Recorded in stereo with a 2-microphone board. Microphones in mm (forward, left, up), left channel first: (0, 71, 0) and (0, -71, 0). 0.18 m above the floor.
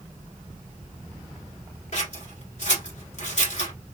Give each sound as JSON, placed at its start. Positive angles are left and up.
{"t": 1.9, "sound": "scissors", "side_deg": 55, "distance_m": 1.4}